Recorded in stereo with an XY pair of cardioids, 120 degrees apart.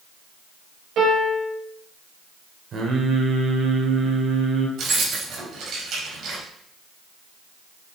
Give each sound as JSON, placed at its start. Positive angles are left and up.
{"t": 1.0, "sound": "a piano", "azimuth_deg": -65, "distance_m": 5.5}
{"t": 2.7, "sound": "singing", "azimuth_deg": -45, "distance_m": 2.0}
{"t": 4.8, "sound": "keys jangling", "azimuth_deg": -60, "distance_m": 4.5}